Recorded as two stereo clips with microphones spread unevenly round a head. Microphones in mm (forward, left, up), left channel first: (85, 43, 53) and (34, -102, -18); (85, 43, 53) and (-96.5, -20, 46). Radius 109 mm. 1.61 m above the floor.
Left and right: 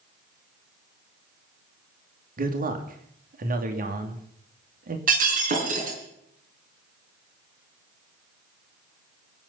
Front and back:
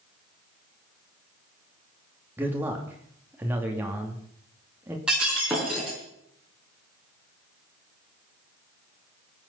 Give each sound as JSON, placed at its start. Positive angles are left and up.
{"t": 2.4, "sound": "a man speaking", "azimuth_deg": -80, "distance_m": 2.5}
{"t": 5.1, "sound": "breaking glass", "azimuth_deg": -75, "distance_m": 5.0}